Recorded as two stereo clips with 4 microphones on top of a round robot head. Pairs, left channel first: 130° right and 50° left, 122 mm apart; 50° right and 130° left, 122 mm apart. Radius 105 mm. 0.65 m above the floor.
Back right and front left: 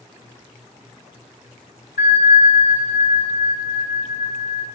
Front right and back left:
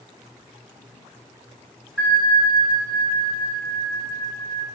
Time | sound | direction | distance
2.0 | a bell | 155° right | 2 m